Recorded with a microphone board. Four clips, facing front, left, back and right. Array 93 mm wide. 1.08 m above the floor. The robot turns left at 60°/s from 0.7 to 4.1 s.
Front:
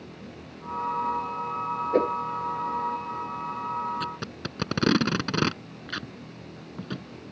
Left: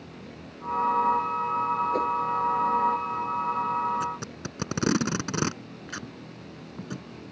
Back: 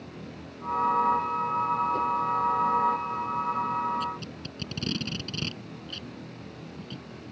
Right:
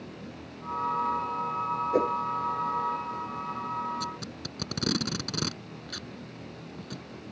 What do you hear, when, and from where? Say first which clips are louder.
1.9 s a whoosh: right 1 dB, front 4 dB; 20° right; by 2.1 s 35° right
4.0 s tape being pulled: left 5 dB, even; 30° left; by 7.0 s 25° left